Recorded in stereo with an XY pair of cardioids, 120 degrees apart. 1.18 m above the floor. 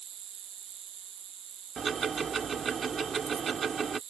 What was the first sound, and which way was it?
An insect, 55° right.